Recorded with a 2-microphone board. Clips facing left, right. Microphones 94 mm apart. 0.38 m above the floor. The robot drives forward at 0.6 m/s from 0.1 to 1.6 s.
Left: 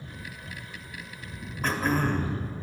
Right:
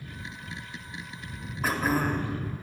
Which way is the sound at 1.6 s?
5° right (ahead or behind).